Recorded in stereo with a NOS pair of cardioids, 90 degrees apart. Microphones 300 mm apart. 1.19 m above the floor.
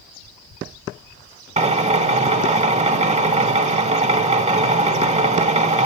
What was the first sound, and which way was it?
A drill, 25° right.